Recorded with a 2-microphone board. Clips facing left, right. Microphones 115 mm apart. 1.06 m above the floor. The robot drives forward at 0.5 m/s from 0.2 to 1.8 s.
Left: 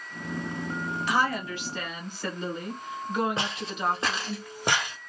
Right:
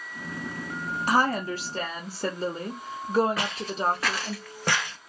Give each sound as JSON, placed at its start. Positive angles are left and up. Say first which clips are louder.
{"t": 1.1, "sound": "a woman speaking", "louder": "right 4 dB", "side_deg": -40, "distance_m": 0.8}
{"t": 3.4, "sound": "footsteps", "louder": "right 2 dB", "side_deg": 25, "distance_m": 1.5}